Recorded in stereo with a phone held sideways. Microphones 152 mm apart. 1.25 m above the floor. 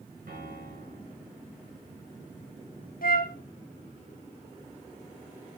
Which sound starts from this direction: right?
A piano, at 0.3 s.